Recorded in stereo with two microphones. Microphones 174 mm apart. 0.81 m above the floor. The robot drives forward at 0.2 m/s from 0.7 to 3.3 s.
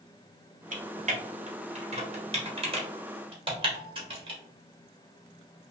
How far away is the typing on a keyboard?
About 0.7 m.